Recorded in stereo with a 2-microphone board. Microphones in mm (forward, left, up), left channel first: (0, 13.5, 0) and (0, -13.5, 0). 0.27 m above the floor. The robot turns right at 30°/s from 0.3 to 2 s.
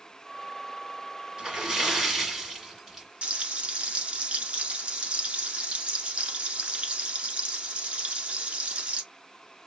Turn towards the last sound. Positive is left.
turn(degrees=-50)  # may be behind; listen again after turning